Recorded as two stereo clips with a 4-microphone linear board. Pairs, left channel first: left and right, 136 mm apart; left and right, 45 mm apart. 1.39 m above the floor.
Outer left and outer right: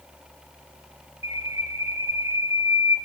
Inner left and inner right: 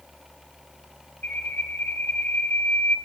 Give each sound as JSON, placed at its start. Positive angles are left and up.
{"t": 1.2, "sound": "a bird", "side_deg": 50, "distance_m": 3.5}